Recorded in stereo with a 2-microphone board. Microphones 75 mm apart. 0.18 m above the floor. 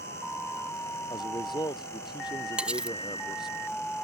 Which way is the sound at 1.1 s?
75° left (ahead or behind).